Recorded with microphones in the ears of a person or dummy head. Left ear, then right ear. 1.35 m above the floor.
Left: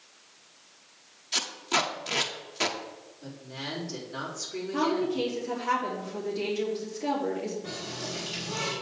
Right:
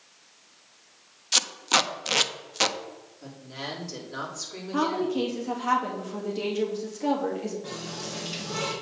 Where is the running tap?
70° right (ahead or behind), 4 m.